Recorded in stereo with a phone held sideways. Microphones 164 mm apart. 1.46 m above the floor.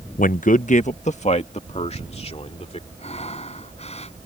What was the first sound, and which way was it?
A man speaking, 55° left (ahead or behind).